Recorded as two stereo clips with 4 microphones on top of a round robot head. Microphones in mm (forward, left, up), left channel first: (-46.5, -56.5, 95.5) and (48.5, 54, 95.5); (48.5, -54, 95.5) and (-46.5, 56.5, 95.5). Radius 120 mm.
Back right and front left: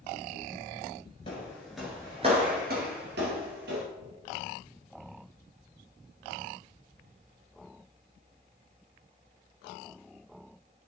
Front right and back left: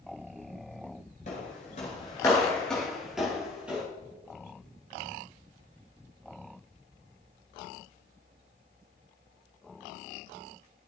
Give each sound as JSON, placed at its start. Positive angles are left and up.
{"t": 1.3, "sound": "footsteps", "azimuth_deg": -80, "distance_m": 1.2}